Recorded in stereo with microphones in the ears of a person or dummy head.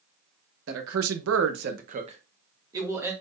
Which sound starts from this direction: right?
A man speaking, at 0.7 s.